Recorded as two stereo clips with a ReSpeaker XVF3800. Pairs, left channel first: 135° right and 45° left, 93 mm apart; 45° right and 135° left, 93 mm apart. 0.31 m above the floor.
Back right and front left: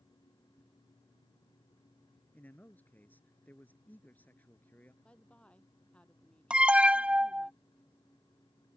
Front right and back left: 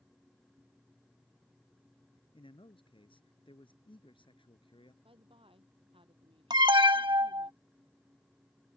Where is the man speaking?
65° right.